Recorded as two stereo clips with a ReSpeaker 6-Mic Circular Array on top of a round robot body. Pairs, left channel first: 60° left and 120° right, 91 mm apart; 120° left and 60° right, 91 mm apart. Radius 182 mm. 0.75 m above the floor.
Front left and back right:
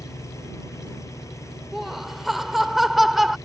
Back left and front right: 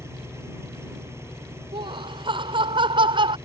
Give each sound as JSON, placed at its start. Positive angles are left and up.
{"t": 0.0, "sound": "an engine running", "azimuth_deg": 0}
{"t": 1.7, "sound": "laughter", "azimuth_deg": -30}